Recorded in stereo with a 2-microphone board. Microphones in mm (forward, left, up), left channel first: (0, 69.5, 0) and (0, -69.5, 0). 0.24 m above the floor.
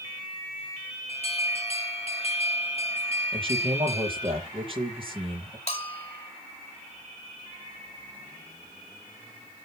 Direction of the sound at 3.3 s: 40° right (ahead or behind).